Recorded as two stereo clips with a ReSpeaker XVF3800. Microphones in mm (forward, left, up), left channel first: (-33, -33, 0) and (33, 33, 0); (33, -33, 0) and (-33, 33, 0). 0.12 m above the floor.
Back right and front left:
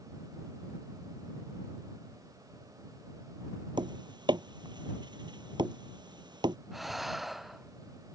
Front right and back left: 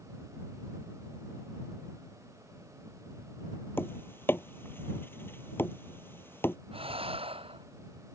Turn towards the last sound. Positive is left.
turn(degrees=135)